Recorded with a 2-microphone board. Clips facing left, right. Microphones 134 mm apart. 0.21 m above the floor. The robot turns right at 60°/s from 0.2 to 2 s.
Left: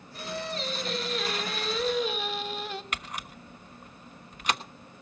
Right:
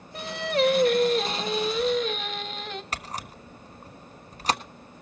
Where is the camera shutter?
35° right (ahead or behind), 1.2 m.